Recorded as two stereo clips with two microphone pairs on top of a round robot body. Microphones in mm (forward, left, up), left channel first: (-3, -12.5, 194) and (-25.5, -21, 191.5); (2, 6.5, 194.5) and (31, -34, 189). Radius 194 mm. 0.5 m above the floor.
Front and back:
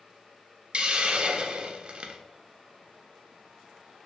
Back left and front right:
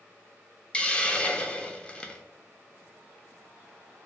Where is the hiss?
160° right, 0.5 m.